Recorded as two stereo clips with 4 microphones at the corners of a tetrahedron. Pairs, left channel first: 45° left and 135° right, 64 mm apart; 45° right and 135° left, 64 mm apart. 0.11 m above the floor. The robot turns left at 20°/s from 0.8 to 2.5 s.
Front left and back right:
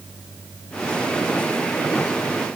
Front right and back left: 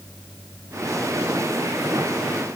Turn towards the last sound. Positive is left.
No sound to turn to.